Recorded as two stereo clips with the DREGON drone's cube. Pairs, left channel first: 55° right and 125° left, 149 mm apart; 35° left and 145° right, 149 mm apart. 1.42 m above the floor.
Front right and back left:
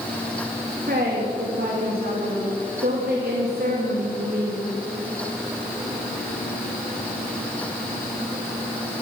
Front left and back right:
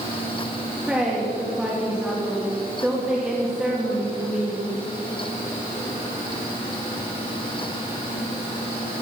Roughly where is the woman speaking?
Behind left.